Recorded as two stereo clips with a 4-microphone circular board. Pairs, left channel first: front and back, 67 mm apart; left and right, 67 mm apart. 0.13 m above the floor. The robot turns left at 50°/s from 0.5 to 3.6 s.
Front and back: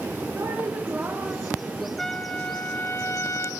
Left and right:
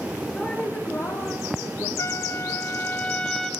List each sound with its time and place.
0.3 s a woman speaking: 155° left, 2.5 m; by 1.9 s 85° left, 2.5 m
2.0 s a trumpet: 80° left, 0.9 m; by 3.5 s 5° left, 0.9 m